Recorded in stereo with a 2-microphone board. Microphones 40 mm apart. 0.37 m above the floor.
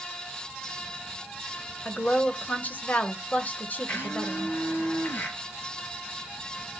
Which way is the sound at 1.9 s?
45° left (ahead or behind).